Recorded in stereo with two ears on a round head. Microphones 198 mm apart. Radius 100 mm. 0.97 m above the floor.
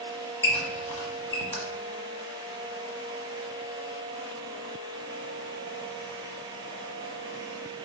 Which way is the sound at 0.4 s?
10° left (ahead or behind).